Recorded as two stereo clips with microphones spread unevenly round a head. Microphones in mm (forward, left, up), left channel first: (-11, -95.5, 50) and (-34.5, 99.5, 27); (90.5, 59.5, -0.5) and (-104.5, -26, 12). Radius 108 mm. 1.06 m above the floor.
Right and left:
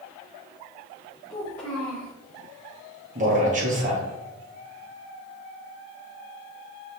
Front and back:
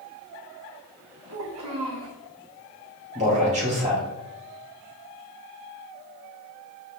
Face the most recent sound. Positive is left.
turn(degrees=145)